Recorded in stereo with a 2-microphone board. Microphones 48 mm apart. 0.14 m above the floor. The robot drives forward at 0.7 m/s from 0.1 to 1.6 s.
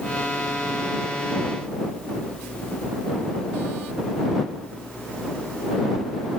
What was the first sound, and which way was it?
Only background noise.